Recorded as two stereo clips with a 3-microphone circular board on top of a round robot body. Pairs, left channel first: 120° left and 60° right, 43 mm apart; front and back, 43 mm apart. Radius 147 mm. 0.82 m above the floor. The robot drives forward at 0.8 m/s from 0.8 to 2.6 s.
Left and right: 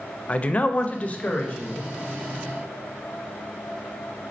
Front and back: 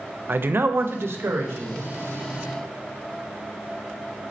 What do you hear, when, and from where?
0.3 s a man speaking: 170° left, 0.5 m; by 1.9 s 175° left, 1.3 m